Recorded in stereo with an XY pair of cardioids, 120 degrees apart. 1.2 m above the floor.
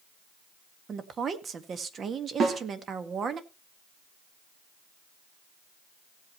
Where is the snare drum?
40° right, 3.5 m.